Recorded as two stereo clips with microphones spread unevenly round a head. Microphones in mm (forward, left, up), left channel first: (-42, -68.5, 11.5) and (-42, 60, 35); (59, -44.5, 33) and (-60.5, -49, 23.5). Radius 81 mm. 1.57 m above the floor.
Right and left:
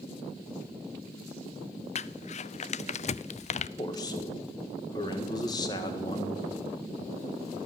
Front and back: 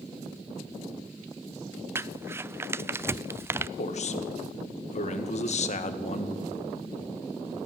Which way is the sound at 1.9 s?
110° right.